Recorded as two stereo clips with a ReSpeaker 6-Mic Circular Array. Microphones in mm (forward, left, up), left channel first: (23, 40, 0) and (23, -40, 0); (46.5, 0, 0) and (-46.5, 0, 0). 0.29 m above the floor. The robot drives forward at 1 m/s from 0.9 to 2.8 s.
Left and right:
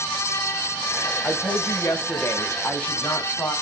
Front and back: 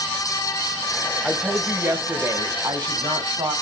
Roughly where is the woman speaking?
Left.